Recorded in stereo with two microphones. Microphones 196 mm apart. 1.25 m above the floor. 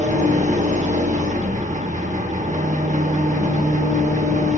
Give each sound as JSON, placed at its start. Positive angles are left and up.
{"t": 0.0, "sound": "an engine running", "side_deg": -40, "distance_m": 0.8}